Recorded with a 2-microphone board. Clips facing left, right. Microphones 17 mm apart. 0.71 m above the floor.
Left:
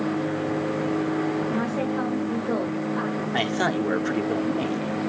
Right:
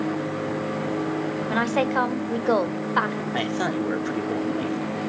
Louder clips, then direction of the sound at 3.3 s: Left 2 dB; 15° left (ahead or behind).